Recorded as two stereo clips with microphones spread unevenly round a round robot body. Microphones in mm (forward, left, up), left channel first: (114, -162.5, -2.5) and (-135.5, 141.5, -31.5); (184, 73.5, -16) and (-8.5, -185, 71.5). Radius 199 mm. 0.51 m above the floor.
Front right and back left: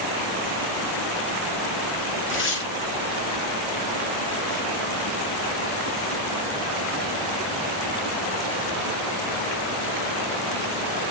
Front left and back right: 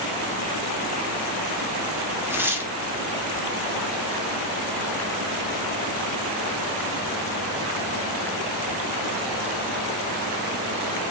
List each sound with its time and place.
2.3 s tearing paper: 20° right, 0.7 m